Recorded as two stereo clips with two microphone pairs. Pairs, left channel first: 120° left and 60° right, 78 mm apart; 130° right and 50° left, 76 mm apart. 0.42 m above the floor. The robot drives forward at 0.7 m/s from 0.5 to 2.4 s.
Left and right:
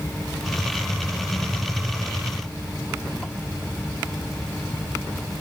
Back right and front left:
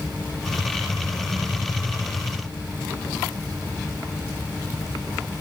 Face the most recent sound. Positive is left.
No sound to turn to.